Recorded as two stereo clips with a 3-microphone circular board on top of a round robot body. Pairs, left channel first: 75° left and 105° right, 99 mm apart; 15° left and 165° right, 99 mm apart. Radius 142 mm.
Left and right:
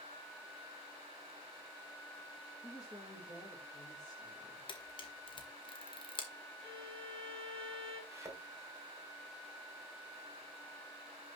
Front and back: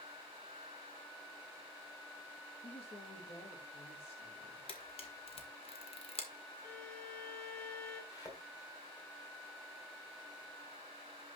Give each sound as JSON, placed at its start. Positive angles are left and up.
{"t": 2.6, "sound": "a woman speaking", "azimuth_deg": 15, "distance_m": 3.0}
{"t": 4.7, "sound": "a camera shutter", "azimuth_deg": 40, "distance_m": 1.8}
{"t": 6.6, "sound": "a violin", "azimuth_deg": -65, "distance_m": 1.5}
{"t": 8.1, "sound": "a thud", "azimuth_deg": -45, "distance_m": 2.5}